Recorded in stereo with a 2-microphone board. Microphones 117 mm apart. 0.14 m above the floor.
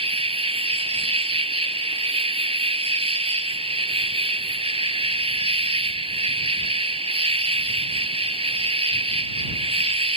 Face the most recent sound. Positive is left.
turn(degrees=-55)  # may be behind; listen again after turning